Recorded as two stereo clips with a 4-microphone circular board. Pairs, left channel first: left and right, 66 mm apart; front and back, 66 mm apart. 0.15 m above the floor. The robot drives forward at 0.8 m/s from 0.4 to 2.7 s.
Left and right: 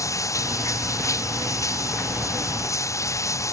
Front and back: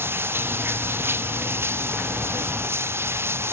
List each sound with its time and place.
0.0 s running water: 125° left; by 3.5 s 130° left